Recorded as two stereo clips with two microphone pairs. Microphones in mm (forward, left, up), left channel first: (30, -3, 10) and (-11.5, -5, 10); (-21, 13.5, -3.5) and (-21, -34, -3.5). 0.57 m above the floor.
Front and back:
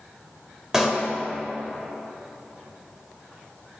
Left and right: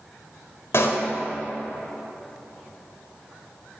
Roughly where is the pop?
Left.